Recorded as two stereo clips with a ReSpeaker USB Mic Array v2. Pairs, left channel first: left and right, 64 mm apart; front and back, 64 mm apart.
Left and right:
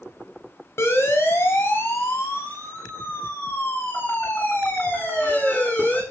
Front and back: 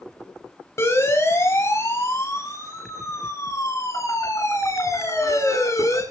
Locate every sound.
0.8 s a siren: 40° left, 6 m; by 6.0 s 30° left, 10.5 m